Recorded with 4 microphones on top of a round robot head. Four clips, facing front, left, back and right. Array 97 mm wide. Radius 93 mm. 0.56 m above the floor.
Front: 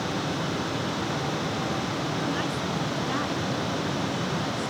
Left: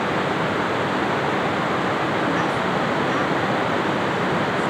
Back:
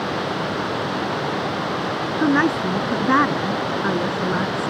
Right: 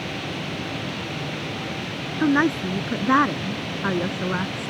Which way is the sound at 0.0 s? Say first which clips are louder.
Left 9 dB, back 5 dB; 120° left.